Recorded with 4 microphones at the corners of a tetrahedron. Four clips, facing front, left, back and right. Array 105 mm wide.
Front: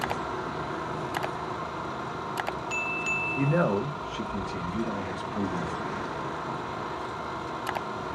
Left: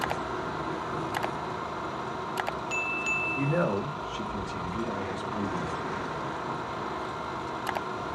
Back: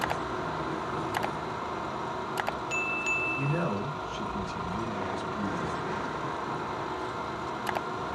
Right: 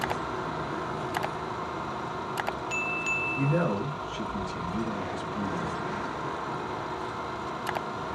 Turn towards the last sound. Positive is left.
turn(degrees=0)